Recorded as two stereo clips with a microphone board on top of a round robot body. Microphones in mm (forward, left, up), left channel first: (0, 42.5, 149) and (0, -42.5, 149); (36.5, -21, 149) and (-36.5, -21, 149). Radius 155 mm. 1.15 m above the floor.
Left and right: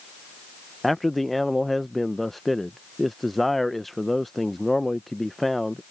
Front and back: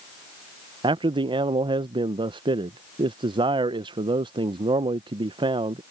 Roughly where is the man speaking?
Behind.